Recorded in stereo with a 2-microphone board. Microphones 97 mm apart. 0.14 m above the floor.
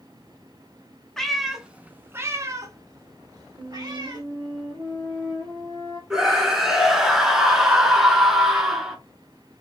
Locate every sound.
1.2 s a cat meowing: 5° left (ahead or behind), 0.8 m; by 4.2 s 40° right (ahead or behind), 1.7 m
3.6 s a flute: 55° right (ahead or behind), 2 m
6.1 s a scream: 5° right (ahead or behind), 1.6 m